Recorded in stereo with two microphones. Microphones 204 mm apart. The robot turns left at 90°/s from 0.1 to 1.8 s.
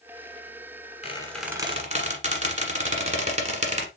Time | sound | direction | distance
1.0 | a squeak | 30° left (ahead or behind) | 1.3 m